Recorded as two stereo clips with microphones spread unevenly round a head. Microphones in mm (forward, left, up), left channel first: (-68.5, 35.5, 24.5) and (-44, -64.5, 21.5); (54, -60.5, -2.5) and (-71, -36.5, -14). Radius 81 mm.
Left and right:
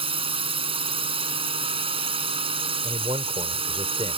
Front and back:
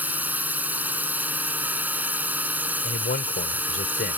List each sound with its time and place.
0.0 s a drone: 115° right
2.8 s a man speaking: 15° right